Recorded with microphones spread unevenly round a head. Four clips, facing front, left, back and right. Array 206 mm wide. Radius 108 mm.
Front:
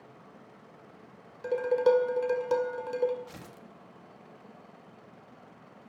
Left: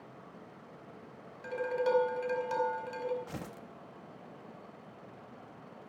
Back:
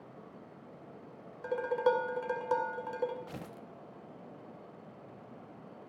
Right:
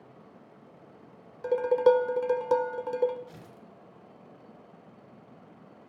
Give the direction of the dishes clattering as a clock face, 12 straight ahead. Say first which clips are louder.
Right 10 dB, front 5 dB; 3 o'clock.